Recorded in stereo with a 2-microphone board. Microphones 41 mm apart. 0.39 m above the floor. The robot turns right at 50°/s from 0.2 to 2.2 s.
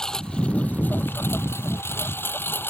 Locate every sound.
0.0 s a lawn mower: 15° left; by 2.7 s 115° left